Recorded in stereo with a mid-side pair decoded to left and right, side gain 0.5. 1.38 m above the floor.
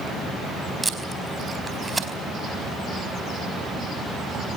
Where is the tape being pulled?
20° right, 4.5 m.